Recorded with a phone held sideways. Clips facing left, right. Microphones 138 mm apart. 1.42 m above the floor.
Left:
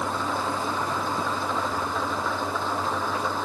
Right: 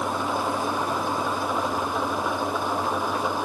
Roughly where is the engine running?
Centre.